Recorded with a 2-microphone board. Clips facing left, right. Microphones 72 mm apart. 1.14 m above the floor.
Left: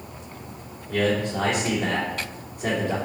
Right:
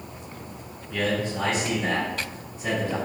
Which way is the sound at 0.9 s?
55° left (ahead or behind).